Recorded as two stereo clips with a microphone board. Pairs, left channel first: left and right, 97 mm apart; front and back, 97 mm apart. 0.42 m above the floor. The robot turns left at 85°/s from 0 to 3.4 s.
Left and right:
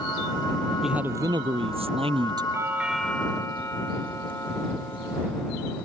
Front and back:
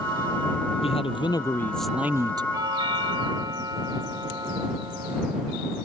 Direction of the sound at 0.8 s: Straight ahead.